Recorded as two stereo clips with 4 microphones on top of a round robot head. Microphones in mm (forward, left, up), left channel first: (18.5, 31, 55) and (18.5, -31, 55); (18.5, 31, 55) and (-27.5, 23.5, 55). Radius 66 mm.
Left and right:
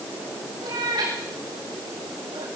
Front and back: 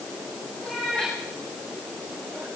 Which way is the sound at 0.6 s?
65° right.